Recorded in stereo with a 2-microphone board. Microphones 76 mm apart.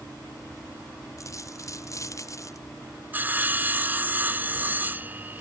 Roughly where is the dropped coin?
Left.